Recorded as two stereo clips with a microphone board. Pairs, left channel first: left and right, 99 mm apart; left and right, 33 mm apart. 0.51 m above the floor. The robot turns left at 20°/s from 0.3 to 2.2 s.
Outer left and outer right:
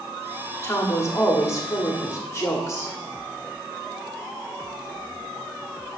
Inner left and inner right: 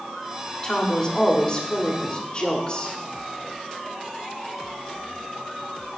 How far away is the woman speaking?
About 1.4 m.